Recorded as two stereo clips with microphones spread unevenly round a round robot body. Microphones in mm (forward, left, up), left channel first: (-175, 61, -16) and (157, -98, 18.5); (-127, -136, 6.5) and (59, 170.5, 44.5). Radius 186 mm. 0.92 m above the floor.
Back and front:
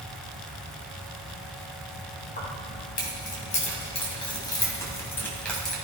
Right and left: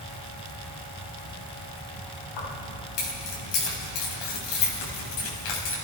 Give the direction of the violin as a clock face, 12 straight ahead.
No violin in this recording.